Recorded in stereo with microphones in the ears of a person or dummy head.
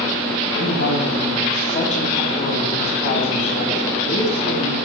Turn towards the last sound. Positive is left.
turn(degrees=45)  # may be behind; listen again after turning